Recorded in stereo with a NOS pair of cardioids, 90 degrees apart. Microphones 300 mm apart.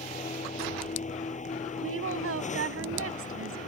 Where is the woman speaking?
45° right.